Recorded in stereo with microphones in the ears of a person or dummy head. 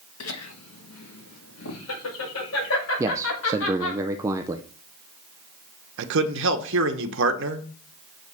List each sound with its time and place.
0.2 s laughter: 75° left (ahead or behind), 1.3 m
3.0 s a man speaking: 15° right (ahead or behind), 0.5 m
6.0 s a man speaking: 70° right (ahead or behind), 1.1 m